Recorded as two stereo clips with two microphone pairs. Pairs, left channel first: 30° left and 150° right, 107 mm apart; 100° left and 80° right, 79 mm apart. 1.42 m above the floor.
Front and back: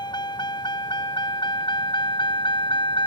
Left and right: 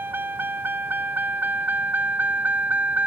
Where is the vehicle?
15° right; by 3.1 s 10° right.